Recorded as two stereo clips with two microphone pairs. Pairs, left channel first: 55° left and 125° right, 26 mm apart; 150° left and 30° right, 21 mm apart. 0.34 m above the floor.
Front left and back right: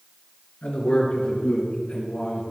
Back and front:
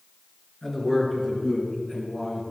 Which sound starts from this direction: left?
A man speaking, at 0.6 s.